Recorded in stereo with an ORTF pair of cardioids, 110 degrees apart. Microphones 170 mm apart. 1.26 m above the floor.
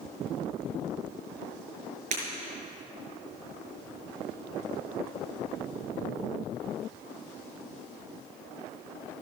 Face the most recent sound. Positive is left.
turn(degrees=-50)